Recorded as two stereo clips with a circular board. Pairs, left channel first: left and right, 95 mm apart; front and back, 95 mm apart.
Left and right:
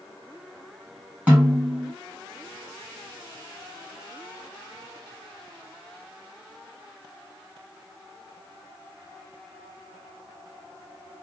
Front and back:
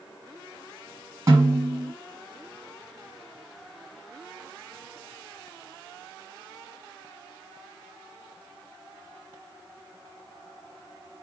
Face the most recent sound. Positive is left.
turn(degrees=-155)